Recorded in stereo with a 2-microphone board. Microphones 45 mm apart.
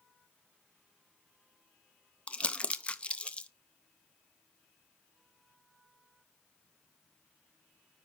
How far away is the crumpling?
About 0.5 m.